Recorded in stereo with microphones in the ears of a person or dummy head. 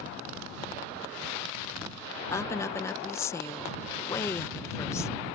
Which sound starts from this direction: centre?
A woman speaking, at 2.3 s.